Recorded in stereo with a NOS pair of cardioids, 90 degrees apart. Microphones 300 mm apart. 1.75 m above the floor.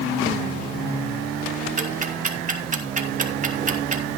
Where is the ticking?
25° right, 2.5 m.